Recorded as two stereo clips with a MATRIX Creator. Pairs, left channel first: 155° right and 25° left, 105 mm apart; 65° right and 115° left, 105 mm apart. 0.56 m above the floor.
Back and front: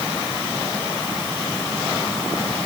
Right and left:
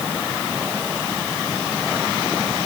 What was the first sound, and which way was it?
Only background noise.